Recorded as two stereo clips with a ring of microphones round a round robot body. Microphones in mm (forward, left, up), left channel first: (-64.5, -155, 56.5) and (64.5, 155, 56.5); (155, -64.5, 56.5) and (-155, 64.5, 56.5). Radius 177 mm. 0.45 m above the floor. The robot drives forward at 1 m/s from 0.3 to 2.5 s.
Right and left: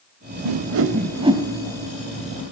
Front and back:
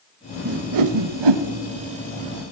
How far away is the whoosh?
About 0.6 m.